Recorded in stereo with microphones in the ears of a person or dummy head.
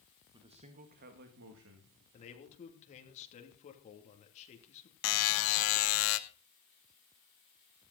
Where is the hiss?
I don't hear a hiss.